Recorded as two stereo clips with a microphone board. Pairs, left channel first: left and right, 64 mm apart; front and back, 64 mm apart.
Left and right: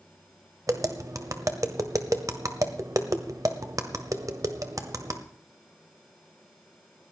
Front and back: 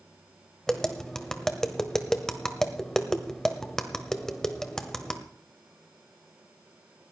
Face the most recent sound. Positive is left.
turn(degrees=-80)